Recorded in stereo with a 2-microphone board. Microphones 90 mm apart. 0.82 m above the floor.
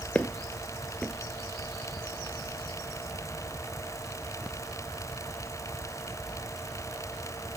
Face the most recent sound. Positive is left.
turn(degrees=15)  # may be behind; listen again after turning